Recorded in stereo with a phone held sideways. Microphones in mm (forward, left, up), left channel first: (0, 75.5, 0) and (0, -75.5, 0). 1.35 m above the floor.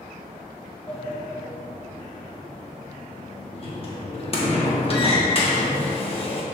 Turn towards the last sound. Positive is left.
turn(degrees=40)  # may be behind; listen again after turning